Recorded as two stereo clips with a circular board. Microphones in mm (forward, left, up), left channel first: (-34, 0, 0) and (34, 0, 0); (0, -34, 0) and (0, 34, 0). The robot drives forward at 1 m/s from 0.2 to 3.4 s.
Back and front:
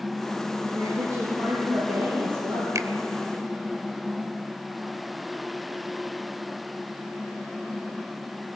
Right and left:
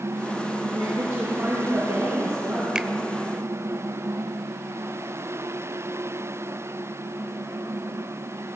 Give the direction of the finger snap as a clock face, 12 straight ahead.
12 o'clock.